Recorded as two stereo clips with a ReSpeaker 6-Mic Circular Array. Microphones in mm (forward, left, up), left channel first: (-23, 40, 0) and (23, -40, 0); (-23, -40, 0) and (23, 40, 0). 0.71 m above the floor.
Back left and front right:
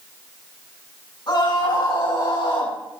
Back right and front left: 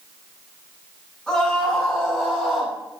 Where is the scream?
160° left, 8 m; by 2.8 s 155° left, 7.5 m.